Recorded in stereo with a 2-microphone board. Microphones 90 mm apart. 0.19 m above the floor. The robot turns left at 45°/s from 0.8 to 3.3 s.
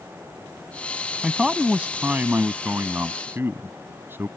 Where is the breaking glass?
No breaking glass in this recording.